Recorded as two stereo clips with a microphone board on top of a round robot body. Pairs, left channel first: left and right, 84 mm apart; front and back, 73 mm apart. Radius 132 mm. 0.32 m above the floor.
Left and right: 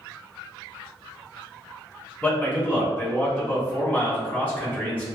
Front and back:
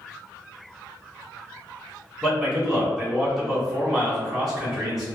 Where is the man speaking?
105° left, 1.4 m.